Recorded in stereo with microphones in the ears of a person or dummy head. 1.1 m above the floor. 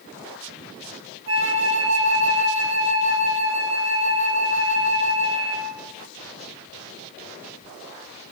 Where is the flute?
85° right, 4.5 m.